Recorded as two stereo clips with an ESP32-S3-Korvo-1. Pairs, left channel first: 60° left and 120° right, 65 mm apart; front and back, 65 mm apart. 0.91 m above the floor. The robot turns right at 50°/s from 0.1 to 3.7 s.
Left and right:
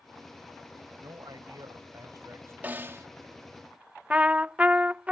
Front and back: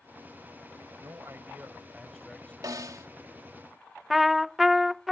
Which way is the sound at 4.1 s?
105° right.